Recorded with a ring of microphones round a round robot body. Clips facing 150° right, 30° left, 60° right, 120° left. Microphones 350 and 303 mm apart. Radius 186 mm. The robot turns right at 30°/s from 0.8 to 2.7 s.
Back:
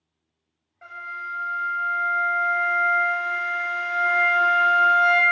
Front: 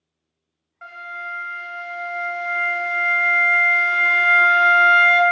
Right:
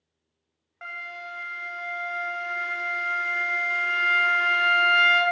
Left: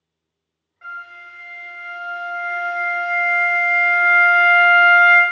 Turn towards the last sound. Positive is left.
turn(degrees=25)